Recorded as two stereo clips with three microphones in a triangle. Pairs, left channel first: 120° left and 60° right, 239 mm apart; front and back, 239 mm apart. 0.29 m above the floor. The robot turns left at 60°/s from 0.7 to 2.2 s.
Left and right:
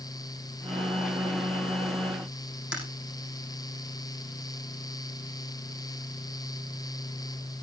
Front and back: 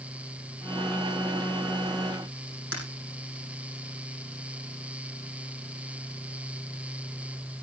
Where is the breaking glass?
25° right, 7.5 m.